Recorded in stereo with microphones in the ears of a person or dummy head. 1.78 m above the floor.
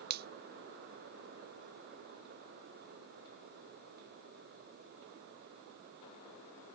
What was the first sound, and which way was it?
A finger snap, 50° right (ahead or behind).